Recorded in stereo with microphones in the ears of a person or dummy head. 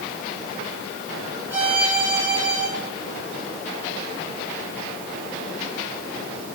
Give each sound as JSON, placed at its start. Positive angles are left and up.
{"t": 1.5, "sound": "a violin", "side_deg": -15, "distance_m": 4.5}